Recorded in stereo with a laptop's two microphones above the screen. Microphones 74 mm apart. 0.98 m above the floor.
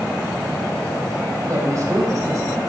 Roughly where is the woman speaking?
Right.